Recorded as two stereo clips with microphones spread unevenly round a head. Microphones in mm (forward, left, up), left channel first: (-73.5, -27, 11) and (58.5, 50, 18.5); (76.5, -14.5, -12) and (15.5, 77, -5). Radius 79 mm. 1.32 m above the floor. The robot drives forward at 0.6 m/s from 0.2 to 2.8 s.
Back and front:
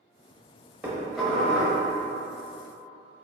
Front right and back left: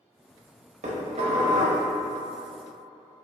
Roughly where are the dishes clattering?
Left.